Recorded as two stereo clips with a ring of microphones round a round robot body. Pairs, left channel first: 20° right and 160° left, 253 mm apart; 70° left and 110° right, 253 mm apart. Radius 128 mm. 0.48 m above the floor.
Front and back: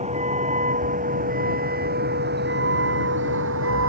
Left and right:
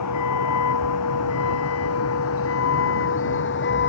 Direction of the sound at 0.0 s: 90° left.